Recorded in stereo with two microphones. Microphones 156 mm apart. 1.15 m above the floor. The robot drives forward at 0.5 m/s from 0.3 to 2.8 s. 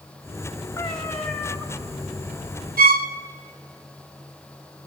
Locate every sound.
0.8 s a cat meowing: 10° left (ahead or behind), 1.4 m
2.8 s a violin: 75° right (ahead or behind), 0.6 m; by 3.1 s 80° right, 0.6 m